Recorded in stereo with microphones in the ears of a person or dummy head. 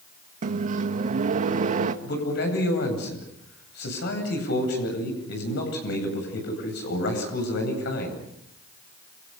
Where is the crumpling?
No crumpling in this recording.